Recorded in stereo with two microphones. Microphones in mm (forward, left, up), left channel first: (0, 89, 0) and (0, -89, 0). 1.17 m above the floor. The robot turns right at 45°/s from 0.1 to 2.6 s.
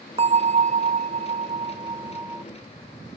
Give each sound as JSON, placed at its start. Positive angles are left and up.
{"t": 0.2, "sound": "a bell", "azimuth_deg": -120}